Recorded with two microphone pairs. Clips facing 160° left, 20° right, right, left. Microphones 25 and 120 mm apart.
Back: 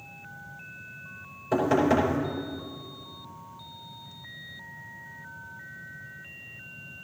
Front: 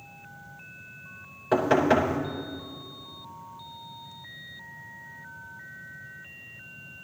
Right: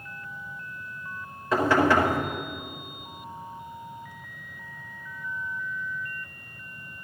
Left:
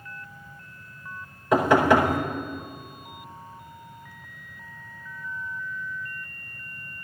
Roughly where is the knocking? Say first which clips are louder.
Front 1 dB, left 3 dB; ahead.